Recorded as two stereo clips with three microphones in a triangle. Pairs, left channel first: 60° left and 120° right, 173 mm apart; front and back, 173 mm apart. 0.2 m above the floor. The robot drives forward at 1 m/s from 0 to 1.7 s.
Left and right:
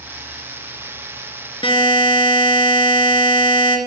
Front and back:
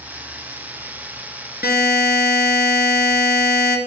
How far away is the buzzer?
About 1.9 m.